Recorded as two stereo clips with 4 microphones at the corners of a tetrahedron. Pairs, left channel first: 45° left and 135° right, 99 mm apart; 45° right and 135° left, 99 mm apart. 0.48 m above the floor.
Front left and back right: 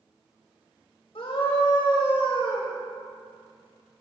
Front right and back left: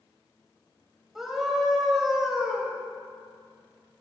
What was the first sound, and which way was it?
A scream, 50° left.